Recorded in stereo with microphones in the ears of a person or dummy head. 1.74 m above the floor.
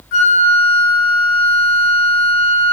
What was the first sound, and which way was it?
A flute, 60° left (ahead or behind).